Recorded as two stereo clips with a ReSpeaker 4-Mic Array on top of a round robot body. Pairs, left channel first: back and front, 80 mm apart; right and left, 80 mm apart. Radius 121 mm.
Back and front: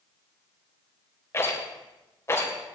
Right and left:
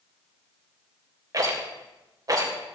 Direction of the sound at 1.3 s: 125° left.